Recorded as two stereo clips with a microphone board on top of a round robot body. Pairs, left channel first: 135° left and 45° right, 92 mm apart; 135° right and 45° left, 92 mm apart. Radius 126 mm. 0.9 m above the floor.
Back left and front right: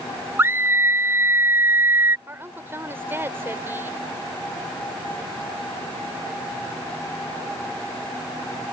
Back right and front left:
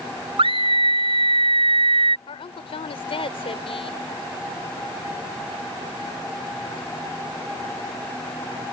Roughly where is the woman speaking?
Right.